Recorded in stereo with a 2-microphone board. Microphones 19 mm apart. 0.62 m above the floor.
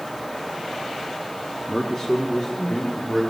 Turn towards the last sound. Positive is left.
turn(degrees=-20)  # may be behind; listen again after turning